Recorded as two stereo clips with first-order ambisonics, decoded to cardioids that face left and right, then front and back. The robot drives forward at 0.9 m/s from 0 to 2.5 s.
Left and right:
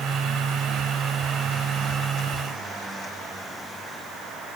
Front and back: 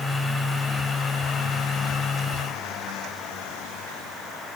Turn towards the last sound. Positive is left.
No sound to turn to.